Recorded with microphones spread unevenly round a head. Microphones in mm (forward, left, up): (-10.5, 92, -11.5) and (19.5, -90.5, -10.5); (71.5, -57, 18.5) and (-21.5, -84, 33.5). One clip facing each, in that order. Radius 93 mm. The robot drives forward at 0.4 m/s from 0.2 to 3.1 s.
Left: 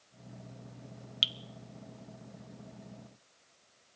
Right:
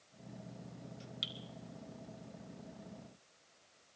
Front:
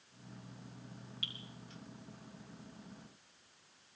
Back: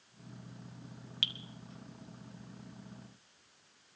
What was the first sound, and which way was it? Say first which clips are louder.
Dripping: left 1 dB, back 7 dB; 155° left.